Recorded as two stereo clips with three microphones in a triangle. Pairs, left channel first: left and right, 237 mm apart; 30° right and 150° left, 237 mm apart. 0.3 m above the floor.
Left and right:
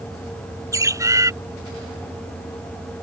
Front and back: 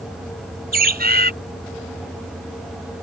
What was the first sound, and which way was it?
A bird, 165° right.